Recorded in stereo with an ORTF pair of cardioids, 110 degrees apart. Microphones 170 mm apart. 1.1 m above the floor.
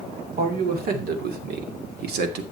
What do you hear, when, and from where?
0.4 s a man speaking: 60° right, 3.5 m; by 2.4 s 75° right, 2 m